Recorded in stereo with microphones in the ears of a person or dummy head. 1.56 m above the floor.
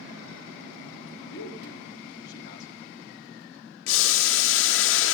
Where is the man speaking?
65° left (ahead or behind), 2 m.